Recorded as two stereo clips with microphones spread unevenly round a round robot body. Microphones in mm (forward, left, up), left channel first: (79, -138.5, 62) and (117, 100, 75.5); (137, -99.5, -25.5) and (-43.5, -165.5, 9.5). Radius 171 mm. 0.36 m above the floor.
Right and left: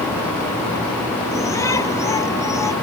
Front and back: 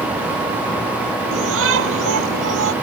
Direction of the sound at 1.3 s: Straight behind.